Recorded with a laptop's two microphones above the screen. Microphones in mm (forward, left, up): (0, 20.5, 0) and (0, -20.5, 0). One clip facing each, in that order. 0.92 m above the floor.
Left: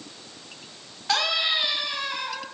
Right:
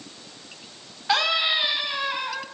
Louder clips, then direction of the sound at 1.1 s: Right 2 dB; 15° right (ahead or behind).